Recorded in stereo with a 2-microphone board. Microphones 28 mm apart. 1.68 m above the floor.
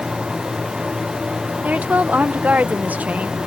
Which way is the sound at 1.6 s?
75° right (ahead or behind).